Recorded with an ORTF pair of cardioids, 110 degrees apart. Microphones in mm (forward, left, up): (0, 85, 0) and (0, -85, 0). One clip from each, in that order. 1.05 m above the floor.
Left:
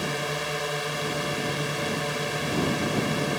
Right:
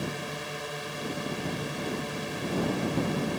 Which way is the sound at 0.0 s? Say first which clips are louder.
Left 6 dB; 40° left.